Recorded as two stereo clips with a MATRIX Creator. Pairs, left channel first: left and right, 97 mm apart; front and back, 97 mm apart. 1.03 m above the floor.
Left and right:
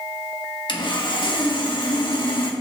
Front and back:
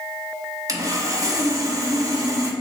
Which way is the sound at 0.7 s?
125° left.